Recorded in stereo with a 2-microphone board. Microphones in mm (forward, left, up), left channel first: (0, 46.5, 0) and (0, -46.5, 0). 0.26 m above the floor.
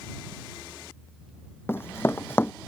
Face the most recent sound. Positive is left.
turn(degrees=25)  # may be behind; listen again after turning